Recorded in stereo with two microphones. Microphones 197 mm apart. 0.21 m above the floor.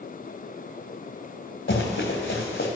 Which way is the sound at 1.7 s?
80° left.